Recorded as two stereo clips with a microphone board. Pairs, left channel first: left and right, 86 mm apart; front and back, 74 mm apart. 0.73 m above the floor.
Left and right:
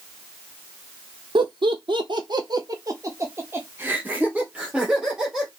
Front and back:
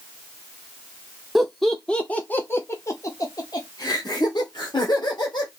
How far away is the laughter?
About 1.2 m.